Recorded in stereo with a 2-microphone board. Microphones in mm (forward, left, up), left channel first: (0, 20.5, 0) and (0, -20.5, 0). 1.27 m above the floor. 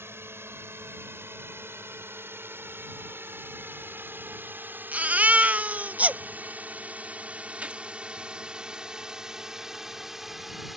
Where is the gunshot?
35° right (ahead or behind).